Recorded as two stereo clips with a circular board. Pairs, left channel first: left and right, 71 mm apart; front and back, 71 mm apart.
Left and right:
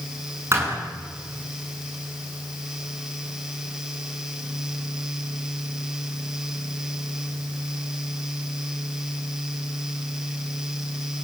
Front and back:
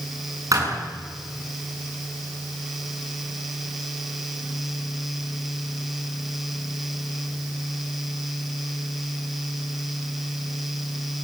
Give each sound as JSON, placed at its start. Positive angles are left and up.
{"t": 0.5, "sound": "a thud", "azimuth_deg": -140, "distance_m": 8.0}